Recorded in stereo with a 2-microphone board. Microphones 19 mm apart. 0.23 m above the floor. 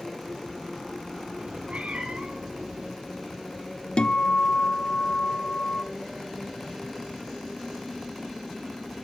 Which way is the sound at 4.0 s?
55° left (ahead or behind).